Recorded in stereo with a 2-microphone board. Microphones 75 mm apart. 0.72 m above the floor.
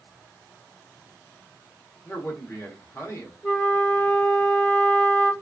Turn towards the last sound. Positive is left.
turn(degrees=25)  # may be behind; listen again after turning